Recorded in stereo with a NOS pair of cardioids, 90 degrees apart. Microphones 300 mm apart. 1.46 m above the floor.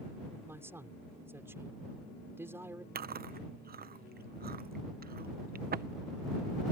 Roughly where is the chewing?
Ahead right.